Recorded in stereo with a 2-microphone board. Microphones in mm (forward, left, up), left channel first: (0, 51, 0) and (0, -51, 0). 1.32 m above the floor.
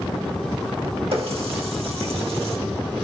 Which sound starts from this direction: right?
A running tap, at 1.1 s.